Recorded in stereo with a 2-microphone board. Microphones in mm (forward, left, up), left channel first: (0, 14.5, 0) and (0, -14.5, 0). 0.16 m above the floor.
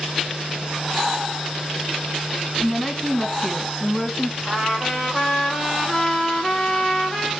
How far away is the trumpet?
About 4 m.